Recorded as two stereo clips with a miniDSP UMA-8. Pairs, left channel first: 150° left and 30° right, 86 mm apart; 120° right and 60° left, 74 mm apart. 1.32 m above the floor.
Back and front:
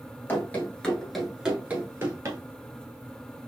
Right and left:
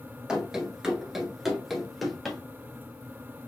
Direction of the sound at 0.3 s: 130° left.